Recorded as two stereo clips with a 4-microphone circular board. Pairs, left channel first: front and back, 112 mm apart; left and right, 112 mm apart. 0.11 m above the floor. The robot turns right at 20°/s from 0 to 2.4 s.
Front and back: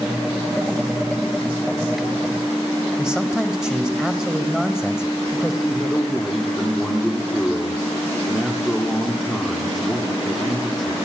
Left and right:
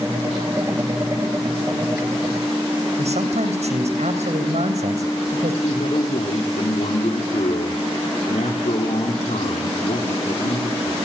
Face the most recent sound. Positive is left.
turn(degrees=90)